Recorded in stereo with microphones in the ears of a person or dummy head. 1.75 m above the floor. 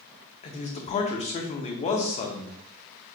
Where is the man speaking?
35° left (ahead or behind), 0.8 m.